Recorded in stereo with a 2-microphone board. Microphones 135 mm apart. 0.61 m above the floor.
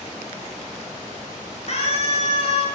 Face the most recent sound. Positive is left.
turn(degrees=50)  # may be behind; listen again after turning